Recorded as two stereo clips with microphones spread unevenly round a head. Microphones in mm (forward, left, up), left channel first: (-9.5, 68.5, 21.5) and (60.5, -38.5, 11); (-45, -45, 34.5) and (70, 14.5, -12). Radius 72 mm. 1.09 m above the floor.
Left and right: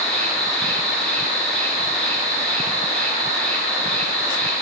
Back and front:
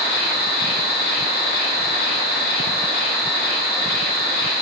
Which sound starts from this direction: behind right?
An insect, at 0.0 s.